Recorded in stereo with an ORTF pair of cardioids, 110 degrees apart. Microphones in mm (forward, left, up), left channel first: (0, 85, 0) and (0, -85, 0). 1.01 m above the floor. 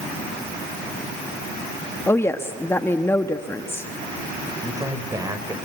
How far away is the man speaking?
About 5 m.